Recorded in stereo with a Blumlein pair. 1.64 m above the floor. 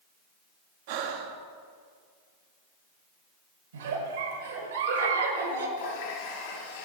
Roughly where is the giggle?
Ahead right.